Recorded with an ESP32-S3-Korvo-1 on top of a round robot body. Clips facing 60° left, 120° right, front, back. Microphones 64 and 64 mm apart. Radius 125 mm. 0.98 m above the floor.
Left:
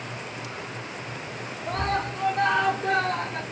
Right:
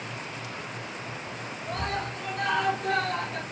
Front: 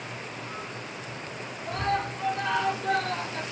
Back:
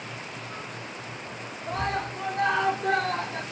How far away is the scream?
About 4 m.